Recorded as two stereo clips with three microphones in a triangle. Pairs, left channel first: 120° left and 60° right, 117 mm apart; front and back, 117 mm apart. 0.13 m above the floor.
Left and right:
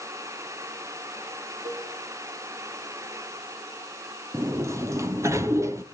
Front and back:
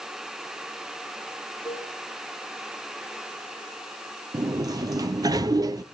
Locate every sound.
1.6 s a cowbell: 100° right, 7.5 m
4.3 s a sliding door: 120° right, 0.6 m